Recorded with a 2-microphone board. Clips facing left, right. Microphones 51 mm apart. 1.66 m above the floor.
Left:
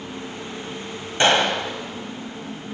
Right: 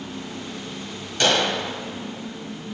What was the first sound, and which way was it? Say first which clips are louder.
A gunshot: left 3 dB; 25° left (ahead or behind).